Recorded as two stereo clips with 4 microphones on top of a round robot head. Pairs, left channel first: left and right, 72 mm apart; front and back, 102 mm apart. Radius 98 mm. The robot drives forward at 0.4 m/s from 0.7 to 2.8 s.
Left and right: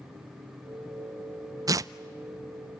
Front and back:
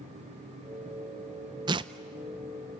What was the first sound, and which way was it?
Tearing paper, 130° right.